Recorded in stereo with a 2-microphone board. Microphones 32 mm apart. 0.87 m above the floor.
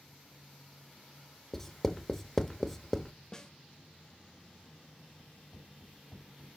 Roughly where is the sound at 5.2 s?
Left.